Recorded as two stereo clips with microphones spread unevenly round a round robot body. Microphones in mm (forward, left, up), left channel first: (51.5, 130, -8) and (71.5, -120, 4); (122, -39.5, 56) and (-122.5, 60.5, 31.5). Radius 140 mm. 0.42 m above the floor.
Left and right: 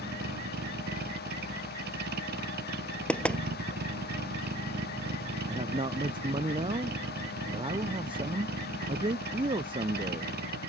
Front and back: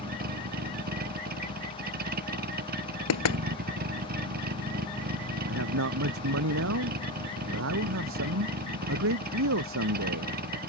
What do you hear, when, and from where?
0.0 s a vehicle: 145° right
3.1 s knocking: 10° left
5.5 s a man speaking: 160° right